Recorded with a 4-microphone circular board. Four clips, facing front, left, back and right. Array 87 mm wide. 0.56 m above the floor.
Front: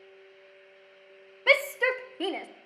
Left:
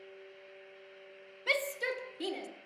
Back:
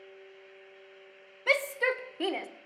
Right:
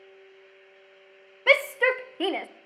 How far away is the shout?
About 0.9 m.